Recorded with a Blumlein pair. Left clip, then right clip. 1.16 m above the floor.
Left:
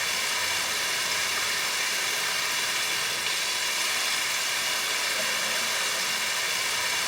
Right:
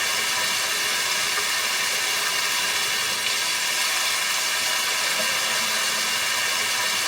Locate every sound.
0.0 s running water: 15° right, 1.8 m